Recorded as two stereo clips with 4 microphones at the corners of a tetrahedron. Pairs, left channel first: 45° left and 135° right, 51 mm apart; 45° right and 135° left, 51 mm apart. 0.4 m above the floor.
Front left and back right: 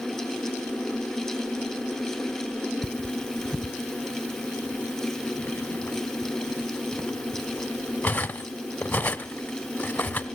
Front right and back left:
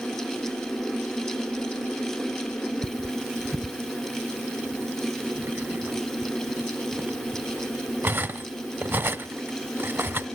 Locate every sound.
2.8 s cutlery clinking: 100° left, 0.8 m